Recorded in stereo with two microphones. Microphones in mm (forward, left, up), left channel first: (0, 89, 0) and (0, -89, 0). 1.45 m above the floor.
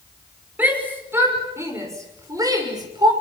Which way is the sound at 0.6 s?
10° right (ahead or behind).